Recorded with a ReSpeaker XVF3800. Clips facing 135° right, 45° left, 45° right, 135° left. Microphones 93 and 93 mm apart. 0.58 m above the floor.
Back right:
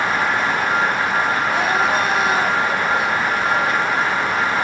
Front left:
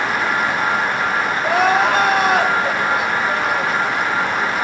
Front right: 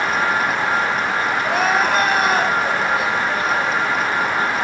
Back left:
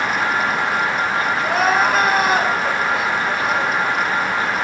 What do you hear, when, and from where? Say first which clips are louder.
1.4 s crying: front left 3 dB, back left 2 dB; 50° left, 4.5 m